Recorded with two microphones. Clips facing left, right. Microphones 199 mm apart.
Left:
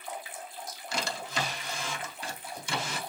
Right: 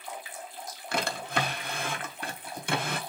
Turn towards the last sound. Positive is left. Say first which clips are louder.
# right 4 dB
turn(degrees=-60)  # may be behind; listen again after turning